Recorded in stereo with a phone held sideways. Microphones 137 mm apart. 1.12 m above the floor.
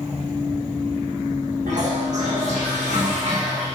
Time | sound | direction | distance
1.7 | a toilet flushing | 65° right (ahead or behind) | 4 m